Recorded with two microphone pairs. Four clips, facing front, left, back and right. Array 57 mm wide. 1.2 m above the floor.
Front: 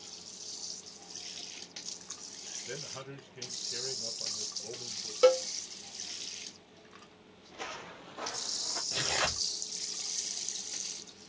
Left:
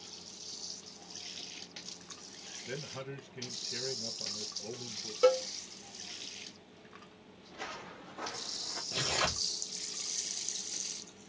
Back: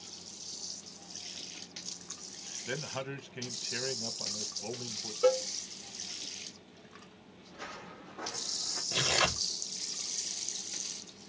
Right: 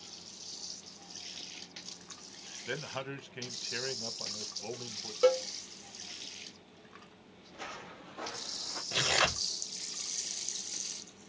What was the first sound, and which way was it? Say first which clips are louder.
A man speaking: right 4 dB, back 6 dB; 120° right.